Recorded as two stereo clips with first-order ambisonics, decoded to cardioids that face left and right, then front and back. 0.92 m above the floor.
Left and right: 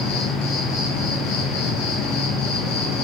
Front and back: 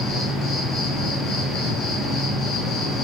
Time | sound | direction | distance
0.0 | an insect | 65° left | 0.8 m